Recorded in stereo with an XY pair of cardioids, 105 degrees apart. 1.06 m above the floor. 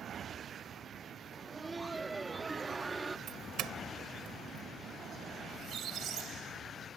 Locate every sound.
1.3 s laughter: 20° right
3.3 s a doorbell: 70° right
5.5 s a squeak: 65° right